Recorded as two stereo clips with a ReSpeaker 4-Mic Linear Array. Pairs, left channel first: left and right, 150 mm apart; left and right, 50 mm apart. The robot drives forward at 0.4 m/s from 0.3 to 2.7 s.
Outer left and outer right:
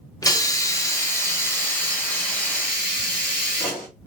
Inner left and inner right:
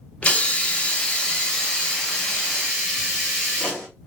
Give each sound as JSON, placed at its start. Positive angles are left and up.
{"t": 0.2, "sound": "a hiss", "side_deg": 25, "distance_m": 0.6}